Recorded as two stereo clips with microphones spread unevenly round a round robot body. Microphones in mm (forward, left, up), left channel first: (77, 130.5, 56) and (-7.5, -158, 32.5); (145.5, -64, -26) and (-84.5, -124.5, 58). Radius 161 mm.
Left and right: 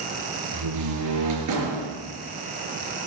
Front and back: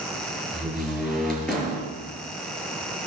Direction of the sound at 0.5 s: 75° right.